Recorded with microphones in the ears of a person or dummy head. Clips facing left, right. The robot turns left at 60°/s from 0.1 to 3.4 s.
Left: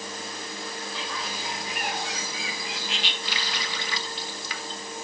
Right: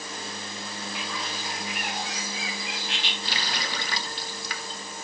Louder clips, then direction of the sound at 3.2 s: Right 1 dB; 25° right (ahead or behind).